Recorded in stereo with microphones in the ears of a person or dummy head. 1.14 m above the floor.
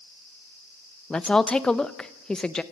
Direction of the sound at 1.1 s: 5° left (ahead or behind).